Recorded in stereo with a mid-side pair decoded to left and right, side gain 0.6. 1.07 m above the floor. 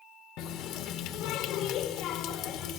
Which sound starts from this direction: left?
A running tap, at 0.4 s.